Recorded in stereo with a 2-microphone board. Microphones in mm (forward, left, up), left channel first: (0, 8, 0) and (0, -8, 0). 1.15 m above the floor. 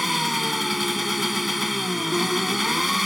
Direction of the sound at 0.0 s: 5° right (ahead or behind).